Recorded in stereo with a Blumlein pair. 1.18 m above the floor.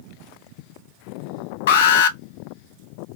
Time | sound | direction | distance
1.7 | an alarm | 55° left | 0.8 m